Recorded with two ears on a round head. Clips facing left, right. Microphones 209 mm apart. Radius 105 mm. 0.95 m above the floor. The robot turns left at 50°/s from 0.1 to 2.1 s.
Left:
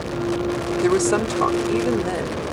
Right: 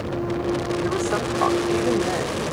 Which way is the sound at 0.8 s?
65° left.